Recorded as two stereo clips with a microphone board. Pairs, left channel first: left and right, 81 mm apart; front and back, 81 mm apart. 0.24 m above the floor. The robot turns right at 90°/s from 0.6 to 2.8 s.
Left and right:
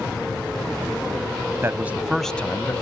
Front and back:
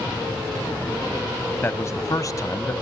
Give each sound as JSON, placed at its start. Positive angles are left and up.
{"t": 1.6, "sound": "a man speaking", "azimuth_deg": -50, "distance_m": 1.3}